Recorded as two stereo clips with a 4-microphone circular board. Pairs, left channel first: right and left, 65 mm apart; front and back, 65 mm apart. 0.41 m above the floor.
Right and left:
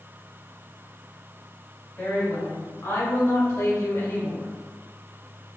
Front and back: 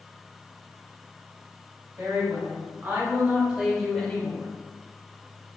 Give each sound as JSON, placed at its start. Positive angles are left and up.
{"t": 2.0, "sound": "a woman speaking", "azimuth_deg": -150, "distance_m": 1.7}